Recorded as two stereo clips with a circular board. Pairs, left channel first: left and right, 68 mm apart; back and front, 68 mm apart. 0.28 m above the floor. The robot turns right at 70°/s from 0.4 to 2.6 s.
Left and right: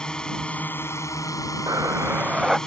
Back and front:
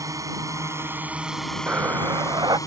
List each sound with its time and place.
0.0 s a drone: 15° left; by 2.7 s 170° left
1.7 s breathing: 65° right; by 2.6 s straight ahead